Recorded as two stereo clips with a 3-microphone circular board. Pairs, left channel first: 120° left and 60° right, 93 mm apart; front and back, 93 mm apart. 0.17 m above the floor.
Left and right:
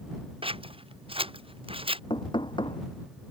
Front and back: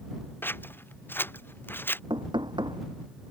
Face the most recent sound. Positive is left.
turn(degrees=150)